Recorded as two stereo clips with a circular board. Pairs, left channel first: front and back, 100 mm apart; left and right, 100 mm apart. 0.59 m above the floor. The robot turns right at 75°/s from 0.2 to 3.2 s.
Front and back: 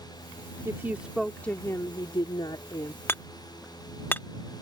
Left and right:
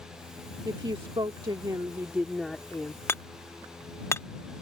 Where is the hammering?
45° left; by 4.3 s 55° left.